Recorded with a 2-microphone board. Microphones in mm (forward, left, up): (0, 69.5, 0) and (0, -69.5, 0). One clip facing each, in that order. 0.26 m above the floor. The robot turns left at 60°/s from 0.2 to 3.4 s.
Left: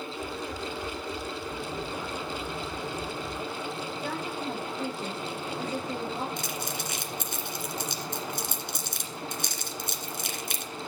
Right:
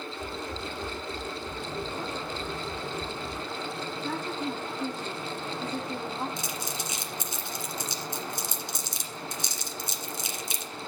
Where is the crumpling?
60° left (ahead or behind), 1.9 m.